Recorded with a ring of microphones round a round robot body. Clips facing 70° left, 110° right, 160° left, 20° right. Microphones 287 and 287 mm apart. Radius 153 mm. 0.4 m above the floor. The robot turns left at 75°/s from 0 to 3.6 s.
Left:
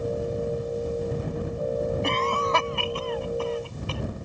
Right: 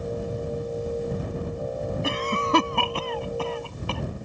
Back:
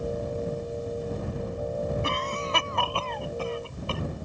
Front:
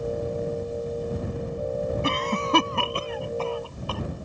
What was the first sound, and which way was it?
A cough, 25° right.